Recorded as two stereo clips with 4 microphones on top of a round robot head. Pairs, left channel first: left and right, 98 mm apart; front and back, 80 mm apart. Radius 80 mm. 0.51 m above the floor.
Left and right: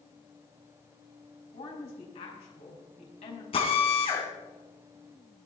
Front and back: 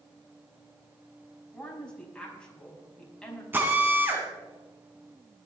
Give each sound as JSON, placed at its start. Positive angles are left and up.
{"t": 1.5, "sound": "a woman speaking", "azimuth_deg": 75, "distance_m": 4.5}
{"t": 3.5, "sound": "a drill", "azimuth_deg": 115, "distance_m": 2.5}